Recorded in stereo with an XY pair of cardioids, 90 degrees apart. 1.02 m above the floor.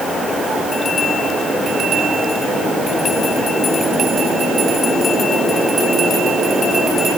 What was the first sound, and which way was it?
Only background noise.